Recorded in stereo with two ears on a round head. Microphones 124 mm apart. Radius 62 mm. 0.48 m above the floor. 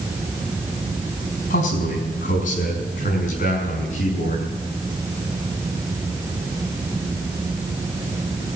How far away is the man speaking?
About 4.5 m.